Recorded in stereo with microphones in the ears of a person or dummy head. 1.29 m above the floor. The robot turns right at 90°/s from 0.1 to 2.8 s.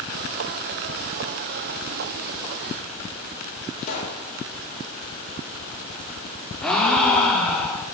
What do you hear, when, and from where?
3.8 s a pop: 40° left (ahead or behind), 1.1 m
6.6 s a gasp: 10° left (ahead or behind), 0.7 m